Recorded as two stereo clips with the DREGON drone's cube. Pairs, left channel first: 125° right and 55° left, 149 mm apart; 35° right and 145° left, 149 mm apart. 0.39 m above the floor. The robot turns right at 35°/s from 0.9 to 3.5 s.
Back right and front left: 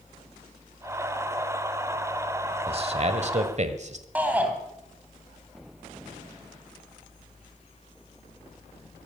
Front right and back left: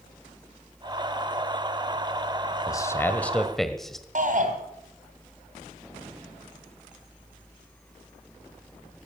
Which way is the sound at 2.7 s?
25° left.